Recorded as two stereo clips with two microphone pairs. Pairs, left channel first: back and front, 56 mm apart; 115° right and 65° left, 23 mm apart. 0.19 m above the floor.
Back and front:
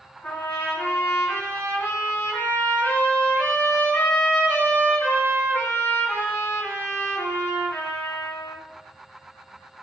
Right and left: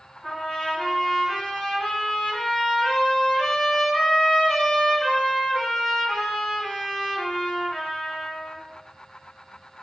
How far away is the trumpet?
About 1.7 m.